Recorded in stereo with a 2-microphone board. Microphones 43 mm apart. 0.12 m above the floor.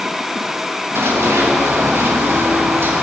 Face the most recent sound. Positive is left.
turn(degrees=-55)  # may be behind; listen again after turning